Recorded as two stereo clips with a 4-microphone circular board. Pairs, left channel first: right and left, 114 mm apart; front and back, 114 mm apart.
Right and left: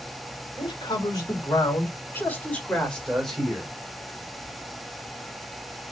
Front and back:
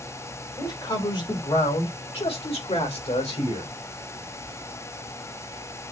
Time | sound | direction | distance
0.6 | a man speaking | 50° right | 2.5 m